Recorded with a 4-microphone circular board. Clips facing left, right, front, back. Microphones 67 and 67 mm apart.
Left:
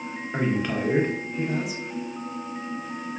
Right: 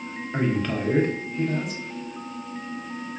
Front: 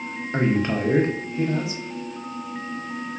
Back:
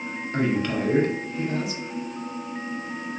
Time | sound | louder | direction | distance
0.3 | a man speaking | even, front 2 dB | 15° left | 0.5 m